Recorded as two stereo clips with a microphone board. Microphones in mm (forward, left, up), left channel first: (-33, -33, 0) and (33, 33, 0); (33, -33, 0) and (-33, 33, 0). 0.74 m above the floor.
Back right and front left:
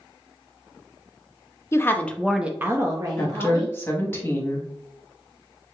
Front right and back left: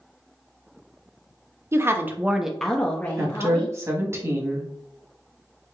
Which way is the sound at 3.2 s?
175° left.